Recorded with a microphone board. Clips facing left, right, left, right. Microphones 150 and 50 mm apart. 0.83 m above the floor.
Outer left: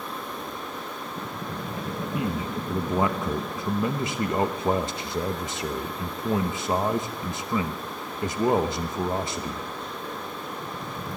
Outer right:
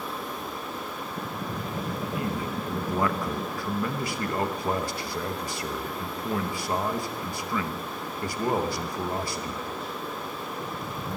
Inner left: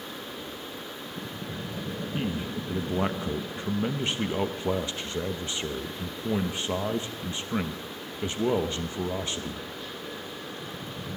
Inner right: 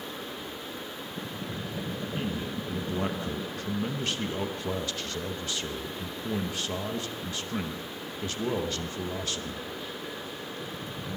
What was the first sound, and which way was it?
A man speaking, 20° left (ahead or behind).